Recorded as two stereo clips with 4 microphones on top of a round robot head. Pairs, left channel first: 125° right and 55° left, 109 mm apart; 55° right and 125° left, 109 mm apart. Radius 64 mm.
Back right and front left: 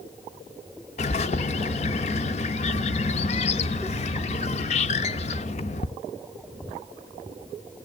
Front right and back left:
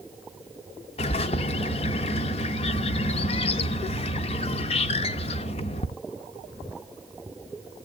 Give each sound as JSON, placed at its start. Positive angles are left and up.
{"t": 1.0, "sound": "a bird", "azimuth_deg": -90, "distance_m": 0.7}